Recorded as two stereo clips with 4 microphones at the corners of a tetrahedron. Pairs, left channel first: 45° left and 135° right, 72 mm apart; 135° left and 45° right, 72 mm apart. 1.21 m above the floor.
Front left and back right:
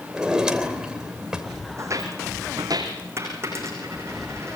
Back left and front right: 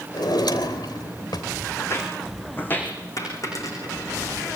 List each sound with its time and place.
0.1 s a drawer: 145° left, 3 m
1.8 s footsteps: straight behind, 4.5 m; by 2.9 s 160° right, 4.5 m
3.2 s a dropped coin: 175° left, 9.5 m